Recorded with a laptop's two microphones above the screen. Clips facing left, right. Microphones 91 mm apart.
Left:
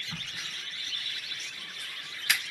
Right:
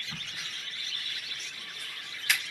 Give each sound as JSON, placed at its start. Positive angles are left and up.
{"t": 0.1, "sound": "a crack", "side_deg": 15, "distance_m": 4.5}